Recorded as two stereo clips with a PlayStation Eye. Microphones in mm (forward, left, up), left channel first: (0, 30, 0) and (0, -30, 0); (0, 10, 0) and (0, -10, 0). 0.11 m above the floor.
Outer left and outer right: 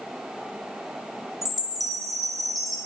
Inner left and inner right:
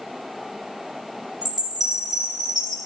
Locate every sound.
1.4 s a chime: centre (ahead or behind), 3.5 m